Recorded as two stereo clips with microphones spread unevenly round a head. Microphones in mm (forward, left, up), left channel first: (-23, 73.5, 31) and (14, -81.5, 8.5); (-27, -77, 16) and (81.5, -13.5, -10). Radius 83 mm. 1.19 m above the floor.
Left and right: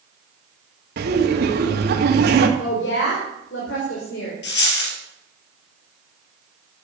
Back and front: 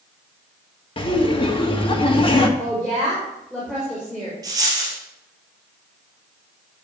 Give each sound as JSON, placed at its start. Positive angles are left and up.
{"t": 1.0, "sound": "laughter", "azimuth_deg": -105, "distance_m": 1.8}
{"t": 2.6, "sound": "a woman speaking", "azimuth_deg": 120, "distance_m": 4.5}
{"t": 4.4, "sound": "a dropped coin", "azimuth_deg": 105, "distance_m": 3.0}